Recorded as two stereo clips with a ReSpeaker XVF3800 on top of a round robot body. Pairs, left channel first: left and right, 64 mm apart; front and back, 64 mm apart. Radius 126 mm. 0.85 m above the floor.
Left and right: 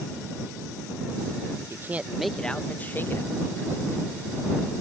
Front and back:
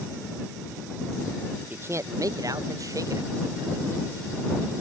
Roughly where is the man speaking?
Behind right.